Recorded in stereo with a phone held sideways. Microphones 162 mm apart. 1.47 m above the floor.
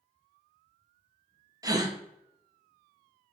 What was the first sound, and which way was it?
A gasp, 20° right (ahead or behind).